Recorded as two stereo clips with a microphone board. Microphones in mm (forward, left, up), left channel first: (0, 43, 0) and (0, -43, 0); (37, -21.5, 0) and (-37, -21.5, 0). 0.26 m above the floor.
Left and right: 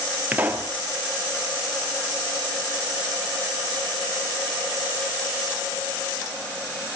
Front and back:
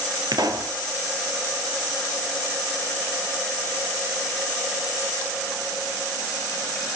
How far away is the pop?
About 2 m.